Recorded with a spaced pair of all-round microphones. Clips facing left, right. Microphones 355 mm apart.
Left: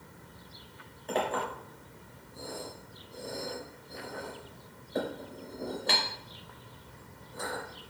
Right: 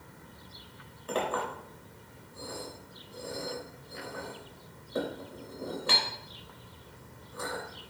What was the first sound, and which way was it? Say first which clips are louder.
A clink: even; 15° right (ahead or behind).